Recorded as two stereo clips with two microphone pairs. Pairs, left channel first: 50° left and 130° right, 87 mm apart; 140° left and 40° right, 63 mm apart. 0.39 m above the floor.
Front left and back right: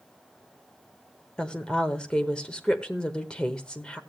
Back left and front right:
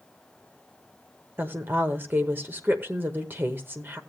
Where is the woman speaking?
25° right, 0.9 m.